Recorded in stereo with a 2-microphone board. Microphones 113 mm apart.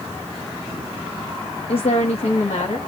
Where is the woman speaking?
60° left (ahead or behind), 0.5 m; by 2.8 s 75° left (ahead or behind), 1.1 m.